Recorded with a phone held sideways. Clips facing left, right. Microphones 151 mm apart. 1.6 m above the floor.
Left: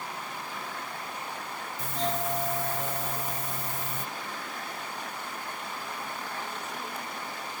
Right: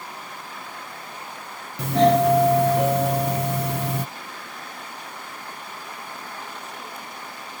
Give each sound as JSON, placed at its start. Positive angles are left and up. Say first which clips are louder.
{"t": 1.8, "sound": "a doorbell", "louder": "right 15 dB", "side_deg": -70}